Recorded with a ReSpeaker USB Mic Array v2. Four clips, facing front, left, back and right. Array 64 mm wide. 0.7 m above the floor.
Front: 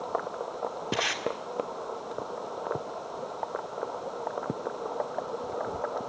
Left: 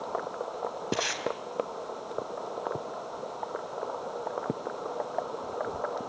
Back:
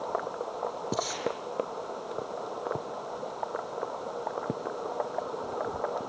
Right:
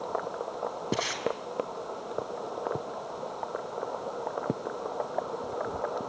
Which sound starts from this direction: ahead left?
Tape being pulled, at 0.9 s.